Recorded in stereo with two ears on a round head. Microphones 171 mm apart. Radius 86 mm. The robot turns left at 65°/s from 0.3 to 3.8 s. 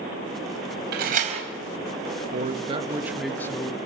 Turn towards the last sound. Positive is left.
turn(degrees=145)